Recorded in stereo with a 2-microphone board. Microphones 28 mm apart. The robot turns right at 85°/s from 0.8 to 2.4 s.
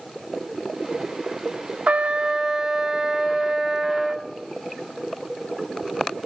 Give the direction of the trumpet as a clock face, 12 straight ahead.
2 o'clock.